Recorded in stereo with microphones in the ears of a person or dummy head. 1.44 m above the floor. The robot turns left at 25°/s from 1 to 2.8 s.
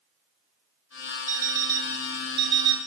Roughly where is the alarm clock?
Ahead.